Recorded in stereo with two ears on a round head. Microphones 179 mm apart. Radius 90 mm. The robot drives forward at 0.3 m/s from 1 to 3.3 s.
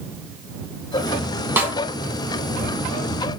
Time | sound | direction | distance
1.6 | a snare drum | 10° right (ahead or behind) | 0.9 m